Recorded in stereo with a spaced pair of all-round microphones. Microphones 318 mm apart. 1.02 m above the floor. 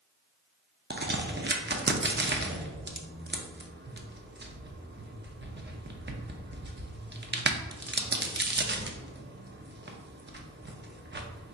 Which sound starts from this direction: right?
A crack, at 0.9 s.